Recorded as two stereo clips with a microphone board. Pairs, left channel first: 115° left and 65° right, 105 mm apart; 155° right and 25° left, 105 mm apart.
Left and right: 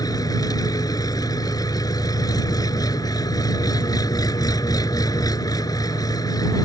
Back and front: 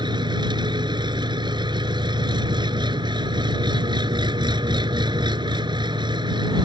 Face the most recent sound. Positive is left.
turn(degrees=60)